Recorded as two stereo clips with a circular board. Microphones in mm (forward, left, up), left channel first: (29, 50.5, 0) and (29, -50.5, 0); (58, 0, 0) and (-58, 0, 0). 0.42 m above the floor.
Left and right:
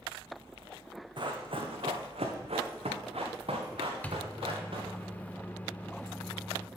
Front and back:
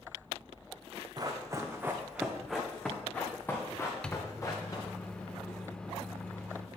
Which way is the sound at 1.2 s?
125° right.